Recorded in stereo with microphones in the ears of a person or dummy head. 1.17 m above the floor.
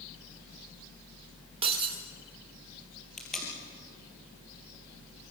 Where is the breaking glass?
30° right (ahead or behind), 2.0 m.